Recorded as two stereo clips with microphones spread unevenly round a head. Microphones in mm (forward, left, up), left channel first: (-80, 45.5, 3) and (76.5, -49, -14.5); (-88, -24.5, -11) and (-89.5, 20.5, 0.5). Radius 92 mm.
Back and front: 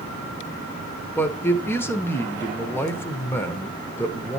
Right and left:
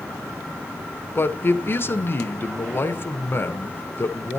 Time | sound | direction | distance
1.1 | a man speaking | 130° right | 1.2 m